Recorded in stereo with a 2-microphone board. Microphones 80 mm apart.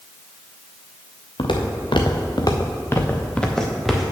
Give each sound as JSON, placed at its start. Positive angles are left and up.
{"t": 1.4, "sound": "footsteps", "side_deg": 85, "distance_m": 1.4}